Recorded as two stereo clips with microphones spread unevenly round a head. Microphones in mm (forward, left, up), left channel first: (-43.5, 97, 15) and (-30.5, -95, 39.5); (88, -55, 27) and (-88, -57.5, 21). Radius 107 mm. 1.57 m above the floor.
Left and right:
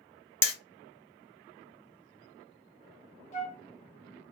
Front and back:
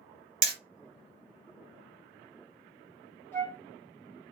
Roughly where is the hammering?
Behind.